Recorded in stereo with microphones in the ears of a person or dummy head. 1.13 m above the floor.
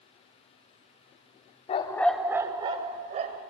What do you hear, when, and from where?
1.7 s a dog barking: 35° left (ahead or behind), 0.8 m; by 3.4 s 40° right (ahead or behind), 1.9 m